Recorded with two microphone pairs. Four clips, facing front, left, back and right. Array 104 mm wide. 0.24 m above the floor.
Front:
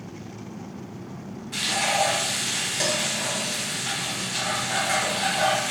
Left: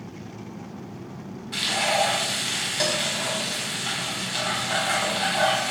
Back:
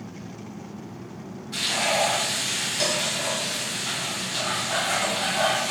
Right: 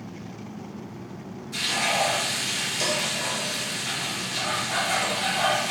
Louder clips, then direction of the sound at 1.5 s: Left 2 dB, even; 80° left.